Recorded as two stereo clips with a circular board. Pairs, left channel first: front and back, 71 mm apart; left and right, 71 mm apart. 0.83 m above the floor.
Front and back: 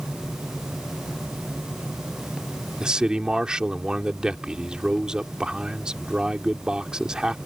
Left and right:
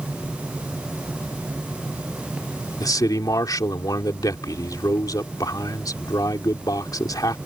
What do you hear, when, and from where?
2.8 s a man speaking: 105° left